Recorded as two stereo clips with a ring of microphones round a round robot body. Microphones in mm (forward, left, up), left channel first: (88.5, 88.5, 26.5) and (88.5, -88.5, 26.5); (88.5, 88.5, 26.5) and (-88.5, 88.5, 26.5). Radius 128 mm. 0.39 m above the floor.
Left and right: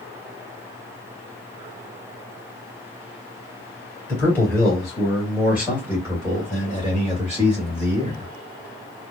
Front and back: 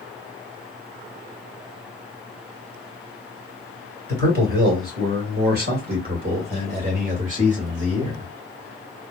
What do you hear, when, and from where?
4.1 s a man speaking: 170° left, 2.5 m; by 8.3 s 125° right, 2.5 m